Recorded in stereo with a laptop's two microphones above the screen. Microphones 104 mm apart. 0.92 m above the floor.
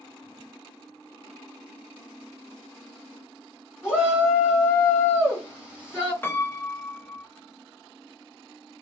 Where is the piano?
20° left (ahead or behind), 0.7 m.